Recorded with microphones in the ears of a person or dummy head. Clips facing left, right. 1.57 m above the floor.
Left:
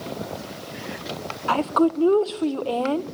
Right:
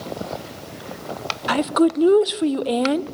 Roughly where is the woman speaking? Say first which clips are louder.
Right 2 dB; centre.